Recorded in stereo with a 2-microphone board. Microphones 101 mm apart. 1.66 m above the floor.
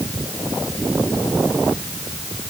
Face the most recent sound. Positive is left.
No sound to turn to.